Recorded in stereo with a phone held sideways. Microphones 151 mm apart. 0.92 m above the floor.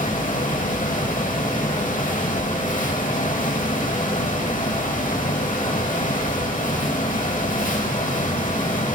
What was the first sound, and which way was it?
A fan, 60° left (ahead or behind).